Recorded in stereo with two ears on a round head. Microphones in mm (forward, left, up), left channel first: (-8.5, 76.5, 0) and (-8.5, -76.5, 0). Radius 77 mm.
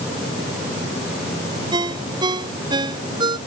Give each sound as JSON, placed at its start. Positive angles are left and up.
{"t": 1.7, "sound": "a ringtone", "side_deg": -25}